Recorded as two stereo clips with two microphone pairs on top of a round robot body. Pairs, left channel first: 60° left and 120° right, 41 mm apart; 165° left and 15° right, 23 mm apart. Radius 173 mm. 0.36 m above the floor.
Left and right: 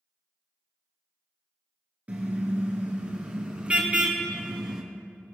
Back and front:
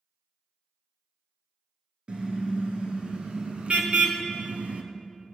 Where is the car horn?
65° right, 3.5 m; by 4.8 s 50° right, 1.8 m.